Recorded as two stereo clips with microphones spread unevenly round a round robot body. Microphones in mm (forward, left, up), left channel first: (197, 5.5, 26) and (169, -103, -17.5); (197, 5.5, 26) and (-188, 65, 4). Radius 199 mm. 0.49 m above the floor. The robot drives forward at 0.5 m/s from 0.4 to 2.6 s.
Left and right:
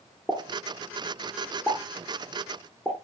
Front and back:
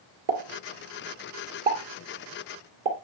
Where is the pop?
165° left, 1.9 m; by 2.9 s 170° left, 3 m.